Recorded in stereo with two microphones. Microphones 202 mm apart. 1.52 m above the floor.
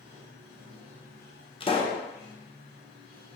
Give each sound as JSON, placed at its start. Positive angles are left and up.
{"t": 0.0, "sound": "running water", "side_deg": -50, "distance_m": 1.0}
{"t": 1.6, "sound": "a pop", "side_deg": 25, "distance_m": 0.6}